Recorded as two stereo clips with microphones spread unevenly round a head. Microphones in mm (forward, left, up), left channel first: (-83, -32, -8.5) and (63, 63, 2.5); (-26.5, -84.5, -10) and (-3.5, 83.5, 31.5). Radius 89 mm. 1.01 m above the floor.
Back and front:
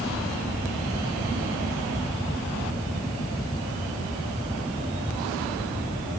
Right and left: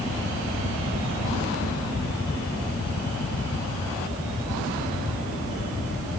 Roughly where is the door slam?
No door slam in this recording.